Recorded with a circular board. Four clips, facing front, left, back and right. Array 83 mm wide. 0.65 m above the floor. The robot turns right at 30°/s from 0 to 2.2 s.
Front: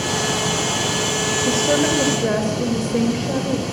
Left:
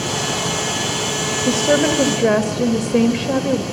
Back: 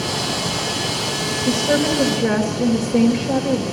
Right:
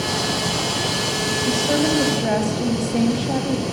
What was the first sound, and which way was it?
A woman speaking, 75° left.